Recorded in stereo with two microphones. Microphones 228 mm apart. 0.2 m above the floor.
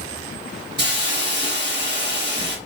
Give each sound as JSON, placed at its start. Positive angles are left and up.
{"t": 0.8, "sound": "a hiss", "side_deg": -50, "distance_m": 1.2}